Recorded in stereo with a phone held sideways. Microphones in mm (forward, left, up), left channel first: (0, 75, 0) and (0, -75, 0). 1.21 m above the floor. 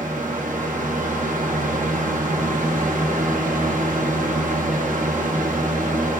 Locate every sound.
0.0 s a fan: 65° right (ahead or behind), 0.9 m